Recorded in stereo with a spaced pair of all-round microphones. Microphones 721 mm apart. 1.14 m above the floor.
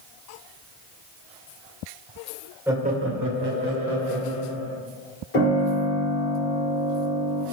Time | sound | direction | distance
2.7 | laughter | 5° right (ahead or behind) | 0.5 m
5.3 | a piano | 65° left (ahead or behind) | 1.8 m